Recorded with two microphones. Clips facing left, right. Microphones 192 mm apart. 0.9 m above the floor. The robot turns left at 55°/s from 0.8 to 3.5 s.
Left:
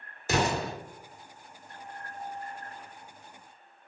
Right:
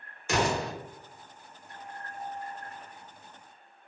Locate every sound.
0.3 s an explosion: 35° left (ahead or behind), 1.1 m